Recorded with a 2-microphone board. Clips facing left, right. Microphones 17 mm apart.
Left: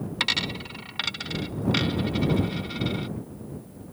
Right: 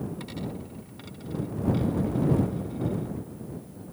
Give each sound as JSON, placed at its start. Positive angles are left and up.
{"t": 0.2, "sound": "a dropped coin", "side_deg": 75}